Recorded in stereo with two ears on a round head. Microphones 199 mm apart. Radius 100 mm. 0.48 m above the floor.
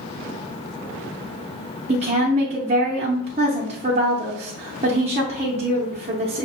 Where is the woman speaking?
30° right (ahead or behind), 0.8 m.